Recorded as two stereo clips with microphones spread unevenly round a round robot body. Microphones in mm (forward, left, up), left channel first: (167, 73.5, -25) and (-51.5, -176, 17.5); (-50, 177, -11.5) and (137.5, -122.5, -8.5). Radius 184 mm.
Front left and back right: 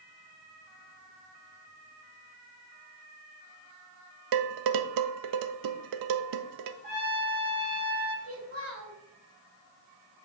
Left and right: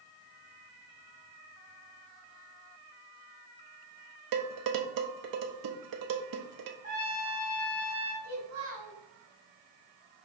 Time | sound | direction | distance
4.3 | dishes clattering | 100° right | 0.5 m
6.8 | a trumpet | 130° right | 2.0 m
8.2 | a child speaking | 85° right | 1.7 m